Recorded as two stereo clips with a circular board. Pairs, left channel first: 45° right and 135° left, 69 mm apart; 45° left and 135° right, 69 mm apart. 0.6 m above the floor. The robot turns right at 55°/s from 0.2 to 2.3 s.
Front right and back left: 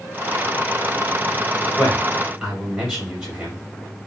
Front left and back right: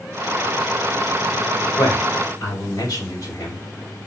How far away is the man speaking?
About 1.4 m.